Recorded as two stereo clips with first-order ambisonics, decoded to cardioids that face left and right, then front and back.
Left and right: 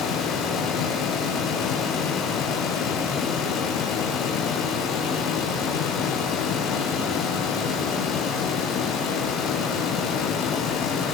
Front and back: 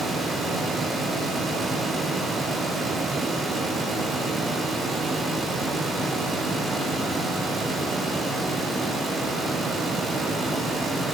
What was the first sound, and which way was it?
Only background noise.